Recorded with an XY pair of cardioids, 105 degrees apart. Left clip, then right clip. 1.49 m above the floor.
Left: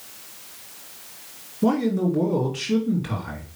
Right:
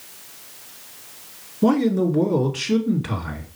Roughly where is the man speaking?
Ahead right.